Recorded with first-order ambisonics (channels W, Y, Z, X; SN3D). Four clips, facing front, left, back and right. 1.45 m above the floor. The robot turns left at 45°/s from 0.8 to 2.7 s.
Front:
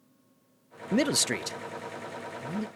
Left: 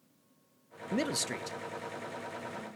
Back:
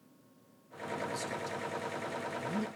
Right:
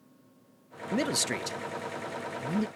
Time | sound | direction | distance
0.9 | a man speaking | 5° right | 0.5 m